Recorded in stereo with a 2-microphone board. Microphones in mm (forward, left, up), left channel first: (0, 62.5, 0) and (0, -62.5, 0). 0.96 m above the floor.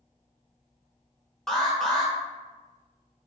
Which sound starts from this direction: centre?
An alarm, at 1.5 s.